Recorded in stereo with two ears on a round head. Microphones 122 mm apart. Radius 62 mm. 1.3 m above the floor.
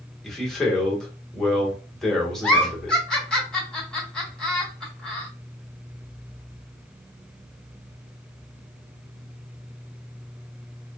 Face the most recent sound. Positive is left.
turn(degrees=5)  # may be behind; listen again after turning